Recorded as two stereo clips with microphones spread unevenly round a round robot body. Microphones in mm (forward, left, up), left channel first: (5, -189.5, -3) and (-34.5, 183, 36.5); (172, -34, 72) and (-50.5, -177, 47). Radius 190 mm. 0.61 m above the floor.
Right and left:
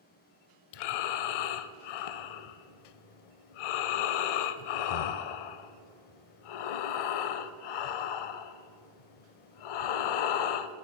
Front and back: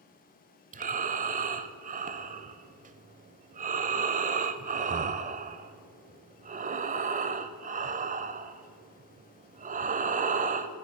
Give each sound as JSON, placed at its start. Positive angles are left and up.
{"t": 0.7, "sound": "breathing", "azimuth_deg": -85, "distance_m": 0.5}